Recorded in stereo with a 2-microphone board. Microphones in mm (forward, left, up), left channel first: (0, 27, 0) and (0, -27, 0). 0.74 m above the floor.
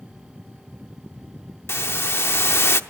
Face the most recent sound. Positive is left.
turn(degrees=50)  # may be behind; listen again after turning